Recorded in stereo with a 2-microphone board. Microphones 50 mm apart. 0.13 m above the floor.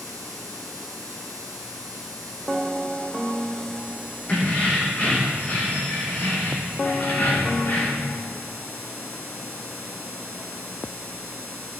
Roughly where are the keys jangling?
Left.